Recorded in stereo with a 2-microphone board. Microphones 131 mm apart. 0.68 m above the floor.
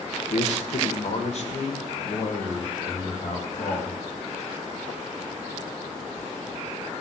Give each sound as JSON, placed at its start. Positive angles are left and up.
{"t": 0.3, "sound": "a man speaking", "side_deg": 60, "distance_m": 1.7}